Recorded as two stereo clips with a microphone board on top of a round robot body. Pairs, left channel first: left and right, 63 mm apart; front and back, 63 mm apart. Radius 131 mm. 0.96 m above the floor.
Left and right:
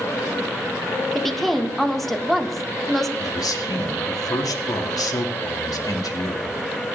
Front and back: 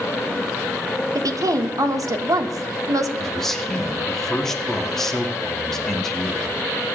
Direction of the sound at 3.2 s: 85° left.